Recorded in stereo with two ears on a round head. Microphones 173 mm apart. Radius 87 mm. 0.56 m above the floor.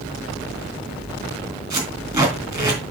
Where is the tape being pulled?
15° right (ahead or behind), 3 m.